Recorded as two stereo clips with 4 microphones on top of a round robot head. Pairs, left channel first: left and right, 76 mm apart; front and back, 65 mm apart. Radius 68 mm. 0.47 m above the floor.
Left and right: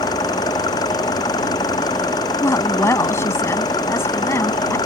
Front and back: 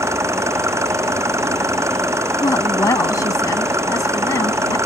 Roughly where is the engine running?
Behind left.